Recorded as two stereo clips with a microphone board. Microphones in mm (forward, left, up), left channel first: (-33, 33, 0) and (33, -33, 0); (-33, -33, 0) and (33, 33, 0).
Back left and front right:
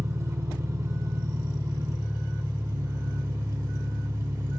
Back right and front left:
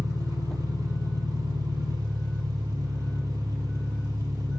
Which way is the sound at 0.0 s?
10° left.